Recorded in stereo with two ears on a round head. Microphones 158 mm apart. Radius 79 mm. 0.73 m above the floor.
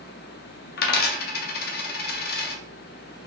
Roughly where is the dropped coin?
Left.